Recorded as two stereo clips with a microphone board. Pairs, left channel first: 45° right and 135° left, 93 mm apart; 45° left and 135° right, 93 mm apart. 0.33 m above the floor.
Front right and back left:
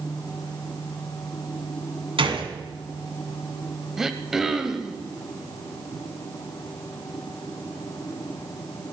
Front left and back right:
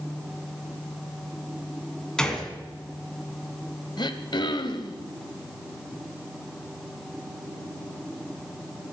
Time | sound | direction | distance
2.2 | a gunshot | 125° left | 2.5 m
4.0 | throat clearing | 50° left | 1.1 m